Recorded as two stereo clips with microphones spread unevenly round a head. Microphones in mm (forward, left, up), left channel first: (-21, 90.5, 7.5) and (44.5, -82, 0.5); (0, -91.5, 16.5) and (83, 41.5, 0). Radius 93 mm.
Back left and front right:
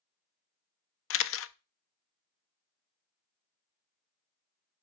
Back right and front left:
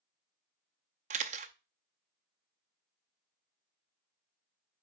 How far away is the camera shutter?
About 0.6 m.